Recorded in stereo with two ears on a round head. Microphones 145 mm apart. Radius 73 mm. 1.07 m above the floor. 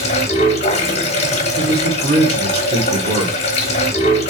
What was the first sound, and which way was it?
Running water, 40° left (ahead or behind).